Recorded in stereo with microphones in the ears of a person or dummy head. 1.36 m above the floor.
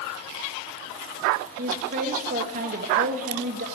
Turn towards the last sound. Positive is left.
turn(degrees=-45)  # may be behind; listen again after turning